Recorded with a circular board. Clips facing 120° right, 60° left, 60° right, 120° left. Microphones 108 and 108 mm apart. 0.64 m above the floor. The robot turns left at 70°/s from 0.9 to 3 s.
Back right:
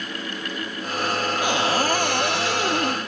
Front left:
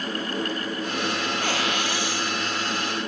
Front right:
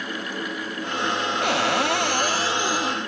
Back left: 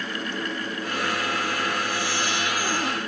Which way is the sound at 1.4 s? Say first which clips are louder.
Back right 8 dB, front right 5 dB; 45° right.